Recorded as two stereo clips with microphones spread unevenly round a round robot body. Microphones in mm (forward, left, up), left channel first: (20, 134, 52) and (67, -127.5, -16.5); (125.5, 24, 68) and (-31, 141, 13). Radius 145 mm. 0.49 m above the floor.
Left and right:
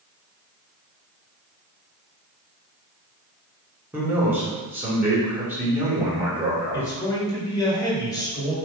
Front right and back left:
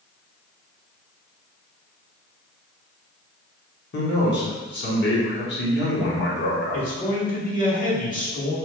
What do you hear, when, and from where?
3.9 s a man speaking: 15° right, 1.6 m
6.7 s a man speaking: 15° left, 1.9 m